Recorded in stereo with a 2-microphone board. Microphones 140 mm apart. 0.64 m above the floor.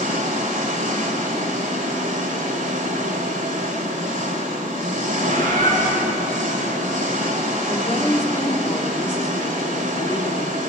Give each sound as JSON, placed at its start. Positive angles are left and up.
{"t": 0.0, "sound": "an engine running", "side_deg": -70, "distance_m": 2.5}
{"t": 5.3, "sound": "a bird", "side_deg": -80, "distance_m": 9.0}
{"t": 7.7, "sound": "a woman speaking", "side_deg": 20, "distance_m": 1.8}